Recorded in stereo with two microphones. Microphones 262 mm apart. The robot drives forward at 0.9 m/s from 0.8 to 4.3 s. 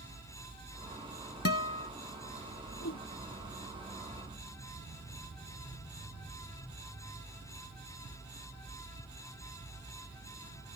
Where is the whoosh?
60° left (ahead or behind).